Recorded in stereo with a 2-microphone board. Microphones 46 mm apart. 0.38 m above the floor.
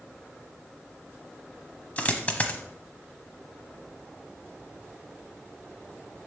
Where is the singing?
No singing in this recording.